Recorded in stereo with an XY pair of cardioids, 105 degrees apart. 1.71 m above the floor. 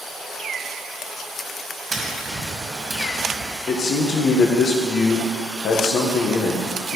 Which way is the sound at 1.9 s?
25° right.